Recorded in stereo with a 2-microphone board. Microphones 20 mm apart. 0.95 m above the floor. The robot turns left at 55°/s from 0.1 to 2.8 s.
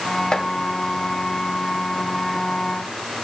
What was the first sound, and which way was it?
Chopping, 45° left (ahead or behind).